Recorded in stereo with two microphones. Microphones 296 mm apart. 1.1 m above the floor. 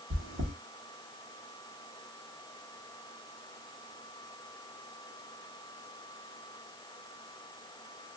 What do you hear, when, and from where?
0.1 s chewing: 50° right (ahead or behind), 1.0 m